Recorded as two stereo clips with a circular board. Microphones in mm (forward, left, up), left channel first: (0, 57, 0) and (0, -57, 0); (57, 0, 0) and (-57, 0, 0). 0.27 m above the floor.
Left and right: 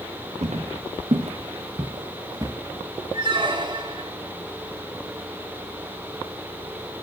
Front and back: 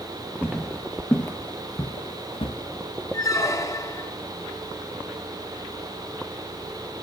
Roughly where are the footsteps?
Right.